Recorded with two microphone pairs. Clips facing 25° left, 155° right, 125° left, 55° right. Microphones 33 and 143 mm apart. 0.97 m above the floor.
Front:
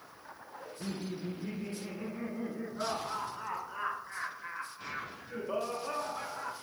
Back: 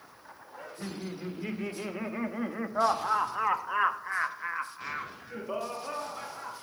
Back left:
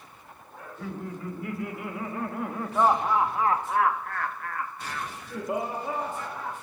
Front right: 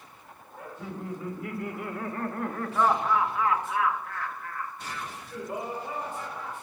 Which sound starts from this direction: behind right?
Laughter, at 0.6 s.